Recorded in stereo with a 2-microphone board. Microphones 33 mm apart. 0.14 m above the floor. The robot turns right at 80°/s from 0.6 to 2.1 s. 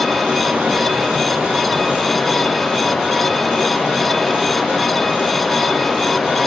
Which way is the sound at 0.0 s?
130° right.